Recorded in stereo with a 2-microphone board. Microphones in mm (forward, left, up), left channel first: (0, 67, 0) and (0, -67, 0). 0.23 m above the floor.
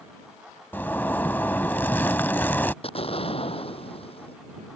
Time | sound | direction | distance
0.7 | a zipper | 15° left (ahead or behind) | ?
2.8 | an explosion | 45° left (ahead or behind) | ?